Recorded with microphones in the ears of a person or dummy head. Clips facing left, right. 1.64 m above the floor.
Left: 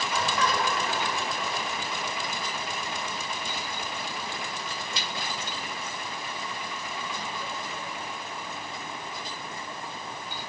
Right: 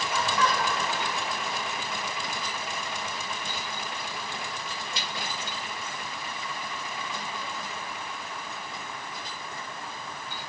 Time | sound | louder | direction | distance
0.1 | laughter | right 1 dB | 25° left (ahead or behind) | 4 m